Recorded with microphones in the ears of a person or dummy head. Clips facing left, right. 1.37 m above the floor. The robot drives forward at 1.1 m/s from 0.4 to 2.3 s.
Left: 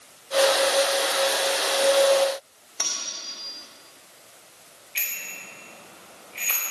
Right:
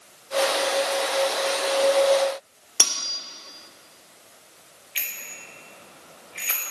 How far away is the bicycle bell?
About 4.5 m.